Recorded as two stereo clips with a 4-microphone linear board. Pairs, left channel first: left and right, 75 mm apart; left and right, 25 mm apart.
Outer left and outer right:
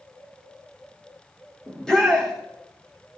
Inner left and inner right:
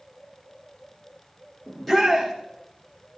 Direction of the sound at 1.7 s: 10° left (ahead or behind).